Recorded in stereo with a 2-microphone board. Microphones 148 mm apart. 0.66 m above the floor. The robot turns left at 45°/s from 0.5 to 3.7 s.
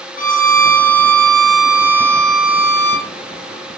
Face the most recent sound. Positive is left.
turn(degrees=-60)